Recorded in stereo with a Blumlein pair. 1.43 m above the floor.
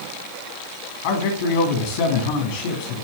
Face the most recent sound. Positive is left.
turn(degrees=50)